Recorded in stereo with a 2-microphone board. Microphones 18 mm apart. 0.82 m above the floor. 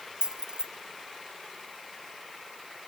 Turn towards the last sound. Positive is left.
turn(degrees=-50)  # may be behind; listen again after turning